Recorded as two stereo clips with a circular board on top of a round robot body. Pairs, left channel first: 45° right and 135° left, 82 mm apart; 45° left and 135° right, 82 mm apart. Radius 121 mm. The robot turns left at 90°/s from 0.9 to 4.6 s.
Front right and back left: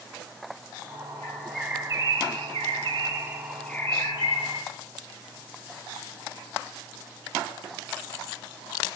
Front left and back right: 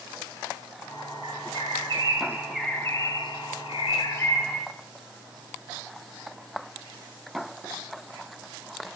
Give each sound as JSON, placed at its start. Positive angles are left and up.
{"t": 1.2, "sound": "a bird", "azimuth_deg": -105, "distance_m": 0.6}